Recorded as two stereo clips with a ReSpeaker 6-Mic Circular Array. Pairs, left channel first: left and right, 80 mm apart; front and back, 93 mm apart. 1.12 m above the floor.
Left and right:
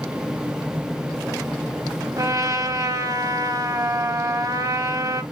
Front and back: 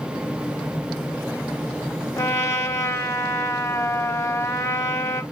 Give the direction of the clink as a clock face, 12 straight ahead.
I don't hear a clink.